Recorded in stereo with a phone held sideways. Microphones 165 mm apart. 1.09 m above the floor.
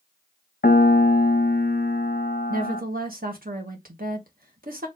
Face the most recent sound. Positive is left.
turn(degrees=-70)  # may be behind; listen again after turning